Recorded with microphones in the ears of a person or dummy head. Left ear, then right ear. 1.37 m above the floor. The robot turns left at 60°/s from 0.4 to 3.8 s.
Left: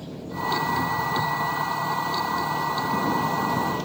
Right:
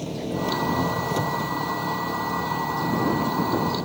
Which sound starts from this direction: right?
An engine running, at 0.0 s.